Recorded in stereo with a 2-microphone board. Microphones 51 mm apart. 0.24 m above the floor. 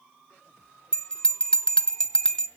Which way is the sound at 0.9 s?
15° left (ahead or behind).